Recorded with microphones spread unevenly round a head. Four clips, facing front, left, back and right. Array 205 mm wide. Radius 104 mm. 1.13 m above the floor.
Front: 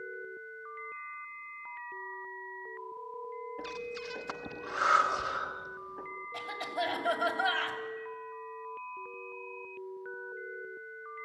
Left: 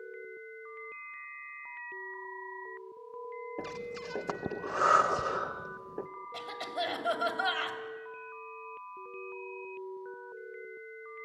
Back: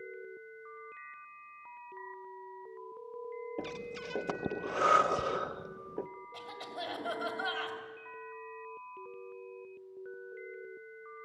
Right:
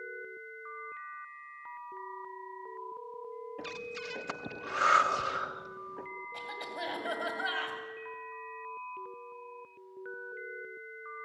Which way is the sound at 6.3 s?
80° left.